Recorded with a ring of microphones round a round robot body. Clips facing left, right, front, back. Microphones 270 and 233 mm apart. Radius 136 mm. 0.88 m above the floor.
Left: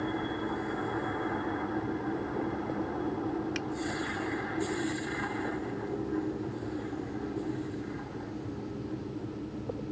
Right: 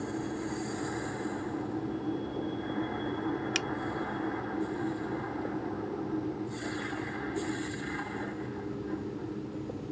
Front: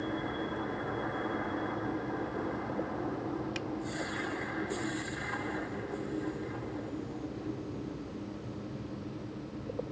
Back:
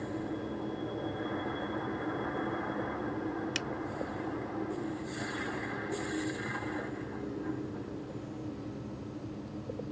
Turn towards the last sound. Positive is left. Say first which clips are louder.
# even, front 1 dB
turn(degrees=-125)